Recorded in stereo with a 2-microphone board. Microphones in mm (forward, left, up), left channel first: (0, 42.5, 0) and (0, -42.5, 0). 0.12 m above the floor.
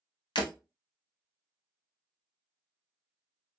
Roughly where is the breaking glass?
Left.